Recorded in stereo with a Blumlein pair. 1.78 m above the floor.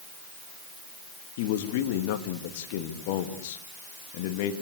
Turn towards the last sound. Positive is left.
turn(degrees=50)